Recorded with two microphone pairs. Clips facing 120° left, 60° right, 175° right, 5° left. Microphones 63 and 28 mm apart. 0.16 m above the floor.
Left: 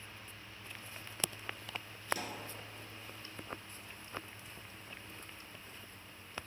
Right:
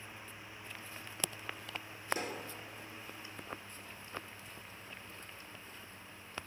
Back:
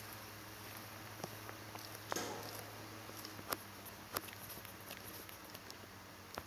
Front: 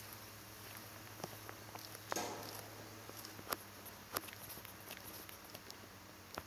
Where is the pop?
115° right, 2.5 m.